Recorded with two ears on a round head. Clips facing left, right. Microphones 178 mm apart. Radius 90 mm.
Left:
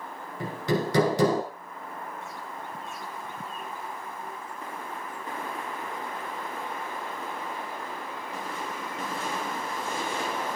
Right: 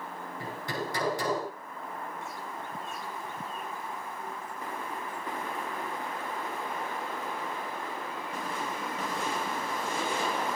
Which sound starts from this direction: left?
Hammering, at 0.4 s.